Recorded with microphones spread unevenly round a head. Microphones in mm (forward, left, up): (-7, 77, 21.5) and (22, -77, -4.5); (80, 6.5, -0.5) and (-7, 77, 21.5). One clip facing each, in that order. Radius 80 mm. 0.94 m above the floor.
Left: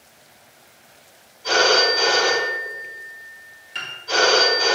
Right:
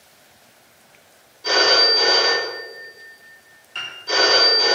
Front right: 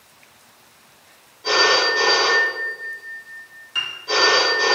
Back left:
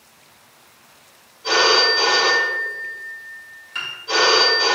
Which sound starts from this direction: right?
A phone ringing, at 1.4 s.